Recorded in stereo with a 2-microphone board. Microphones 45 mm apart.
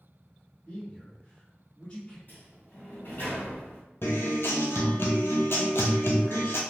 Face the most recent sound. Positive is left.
turn(degrees=70)  # may be behind; listen again after turning